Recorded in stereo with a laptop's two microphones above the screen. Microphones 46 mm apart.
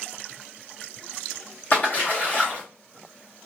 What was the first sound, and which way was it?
A splash, 40° left (ahead or behind).